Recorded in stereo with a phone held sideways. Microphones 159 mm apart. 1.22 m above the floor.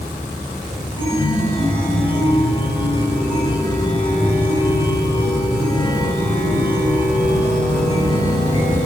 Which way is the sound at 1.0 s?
30° left (ahead or behind).